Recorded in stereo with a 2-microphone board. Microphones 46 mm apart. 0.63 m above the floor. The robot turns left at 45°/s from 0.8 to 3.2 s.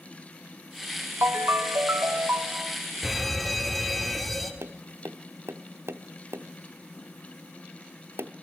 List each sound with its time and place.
1.2 s a ringtone: 80° right, 0.9 m; by 2.8 s 150° right, 0.9 m
3.0 s an alarm: 5° right (ahead or behind), 2.0 m; by 4.5 s centre (ahead or behind), 2.0 m
4.6 s tapping: 70° right (ahead or behind), 0.6 m